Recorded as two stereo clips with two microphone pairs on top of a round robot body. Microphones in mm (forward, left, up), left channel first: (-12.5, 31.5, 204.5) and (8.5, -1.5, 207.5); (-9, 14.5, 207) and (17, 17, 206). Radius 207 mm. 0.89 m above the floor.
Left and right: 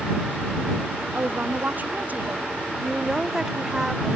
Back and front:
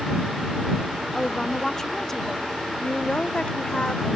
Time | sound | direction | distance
1.1 | a woman speaking | 105° right | ?
2.8 | a woman speaking | 135° right | ?